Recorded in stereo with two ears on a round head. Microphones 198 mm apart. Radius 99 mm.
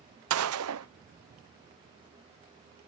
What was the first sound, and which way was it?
A gunshot, 75° right (ahead or behind).